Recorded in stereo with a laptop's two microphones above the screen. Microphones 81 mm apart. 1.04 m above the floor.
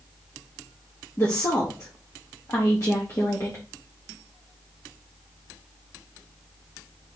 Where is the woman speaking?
40° left (ahead or behind), 1.6 m.